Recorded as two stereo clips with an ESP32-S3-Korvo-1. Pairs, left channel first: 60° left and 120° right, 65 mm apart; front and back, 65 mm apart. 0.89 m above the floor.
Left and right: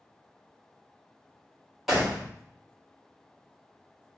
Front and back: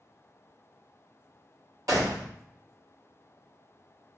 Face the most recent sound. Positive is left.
turn(degrees=150)